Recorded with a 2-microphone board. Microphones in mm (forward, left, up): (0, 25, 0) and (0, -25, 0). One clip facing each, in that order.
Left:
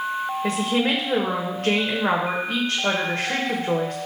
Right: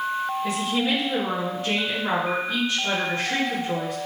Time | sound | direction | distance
0.4 | a woman speaking | 60° left (ahead or behind) | 1.9 m